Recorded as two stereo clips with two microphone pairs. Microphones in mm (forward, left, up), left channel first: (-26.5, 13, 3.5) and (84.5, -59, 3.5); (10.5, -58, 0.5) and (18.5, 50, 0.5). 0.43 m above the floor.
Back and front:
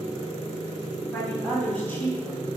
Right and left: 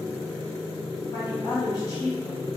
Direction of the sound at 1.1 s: 135° right.